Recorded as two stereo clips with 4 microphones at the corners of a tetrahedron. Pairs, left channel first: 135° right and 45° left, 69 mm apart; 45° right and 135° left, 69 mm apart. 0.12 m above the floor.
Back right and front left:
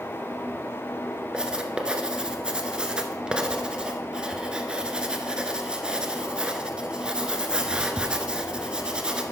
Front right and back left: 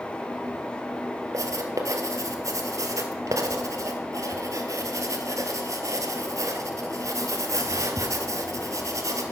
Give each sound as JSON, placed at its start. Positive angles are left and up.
{"t": 1.3, "sound": "writing", "azimuth_deg": 120, "distance_m": 0.9}